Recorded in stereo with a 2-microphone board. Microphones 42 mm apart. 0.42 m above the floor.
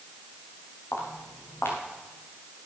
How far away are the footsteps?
About 4.5 m.